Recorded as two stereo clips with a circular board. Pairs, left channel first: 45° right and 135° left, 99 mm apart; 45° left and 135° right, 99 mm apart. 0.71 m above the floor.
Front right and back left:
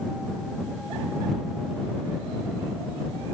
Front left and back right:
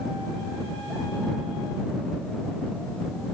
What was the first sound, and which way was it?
Only background noise.